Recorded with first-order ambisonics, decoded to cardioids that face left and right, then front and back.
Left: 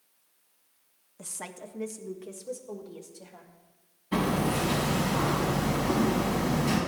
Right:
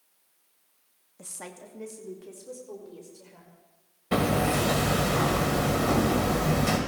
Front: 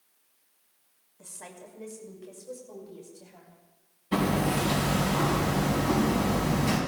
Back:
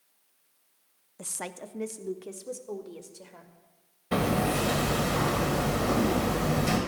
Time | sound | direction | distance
1.2 | a woman speaking | 175° left | 0.7 m
4.1 | hammering | 120° right | 2.5 m